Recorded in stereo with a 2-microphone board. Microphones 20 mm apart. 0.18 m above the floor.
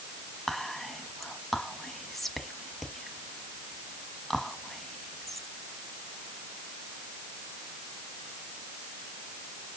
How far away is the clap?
I don't hear a clap.